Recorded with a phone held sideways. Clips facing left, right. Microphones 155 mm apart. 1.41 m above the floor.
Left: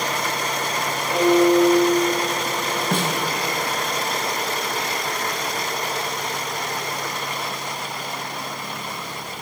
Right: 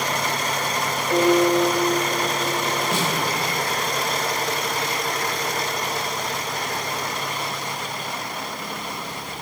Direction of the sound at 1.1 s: 40° right (ahead or behind).